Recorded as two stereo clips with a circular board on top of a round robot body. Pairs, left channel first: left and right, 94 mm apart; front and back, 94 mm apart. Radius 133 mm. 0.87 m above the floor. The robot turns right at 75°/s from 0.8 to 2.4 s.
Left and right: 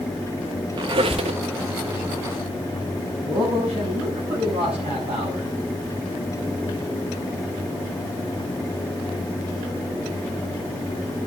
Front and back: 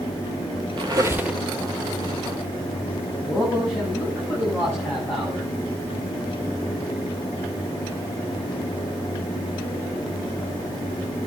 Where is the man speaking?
80° right, 8 m.